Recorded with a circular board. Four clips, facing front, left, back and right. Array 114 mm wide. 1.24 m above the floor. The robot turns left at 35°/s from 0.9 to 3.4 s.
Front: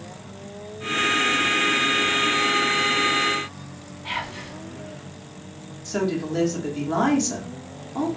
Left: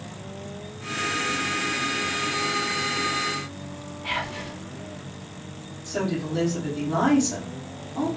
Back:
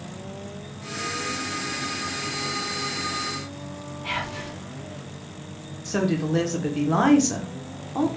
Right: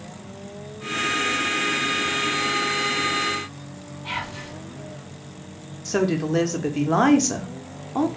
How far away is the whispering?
About 1.1 m.